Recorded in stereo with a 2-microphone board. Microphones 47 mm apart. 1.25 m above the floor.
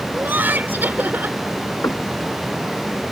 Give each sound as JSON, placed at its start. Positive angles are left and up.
{"t": 0.1, "sound": "laughter", "side_deg": -40}
{"t": 1.8, "sound": "knocking", "side_deg": 80}